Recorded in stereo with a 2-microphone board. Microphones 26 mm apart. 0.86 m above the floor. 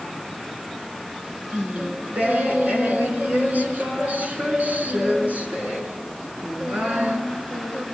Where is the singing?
80° right, 3.5 m.